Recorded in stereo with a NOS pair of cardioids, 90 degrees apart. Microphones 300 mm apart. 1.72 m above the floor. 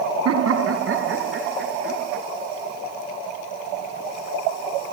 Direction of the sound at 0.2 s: 55° right.